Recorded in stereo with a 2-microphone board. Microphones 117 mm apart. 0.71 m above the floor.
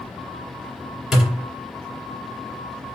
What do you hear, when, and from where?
1.1 s a thud: 5° right (ahead or behind), 1.6 m